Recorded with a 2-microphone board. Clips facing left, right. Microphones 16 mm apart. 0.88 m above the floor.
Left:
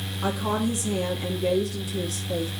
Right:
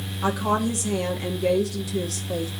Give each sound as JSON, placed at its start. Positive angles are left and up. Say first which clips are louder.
{"t": 0.2, "sound": "a woman speaking", "louder": "right 3 dB", "side_deg": -25, "distance_m": 1.2}